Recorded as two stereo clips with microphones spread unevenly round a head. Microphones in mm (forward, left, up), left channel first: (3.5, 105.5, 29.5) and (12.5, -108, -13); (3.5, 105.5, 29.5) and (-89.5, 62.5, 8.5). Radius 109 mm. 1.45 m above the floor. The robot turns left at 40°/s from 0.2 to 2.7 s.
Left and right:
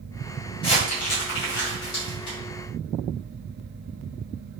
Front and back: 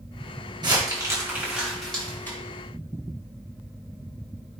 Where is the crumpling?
160° left, 4.5 m; by 2.4 s 90° left, 4.5 m.